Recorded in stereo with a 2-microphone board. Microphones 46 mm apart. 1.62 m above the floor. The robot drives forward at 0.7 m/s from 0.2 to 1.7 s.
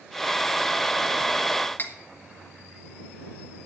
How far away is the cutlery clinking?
About 1.4 m.